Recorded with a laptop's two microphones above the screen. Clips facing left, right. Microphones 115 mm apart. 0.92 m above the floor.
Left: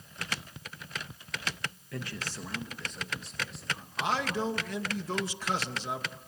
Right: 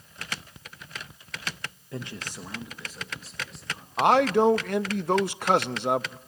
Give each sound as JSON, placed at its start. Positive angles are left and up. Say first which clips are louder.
{"t": 1.9, "sound": "a man speaking", "louder": "right 3 dB", "side_deg": -25, "distance_m": 0.8}
{"t": 4.0, "sound": "a man speaking", "louder": "right 12 dB", "side_deg": -60, "distance_m": 0.6}